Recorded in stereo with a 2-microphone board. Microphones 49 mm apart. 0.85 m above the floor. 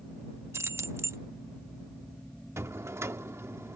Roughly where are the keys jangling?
Right.